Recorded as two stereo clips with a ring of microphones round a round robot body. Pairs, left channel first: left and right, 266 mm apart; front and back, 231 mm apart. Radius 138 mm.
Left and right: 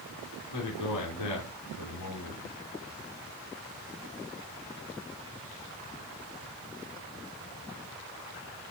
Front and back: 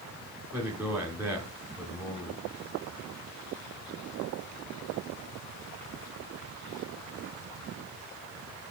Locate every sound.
0.5 s a man speaking: 90° left, 3.5 m